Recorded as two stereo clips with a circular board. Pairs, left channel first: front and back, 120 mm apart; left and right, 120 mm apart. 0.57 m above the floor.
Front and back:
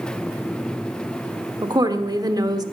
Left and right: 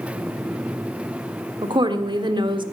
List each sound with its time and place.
1.6 s a woman speaking: 130° right, 1.4 m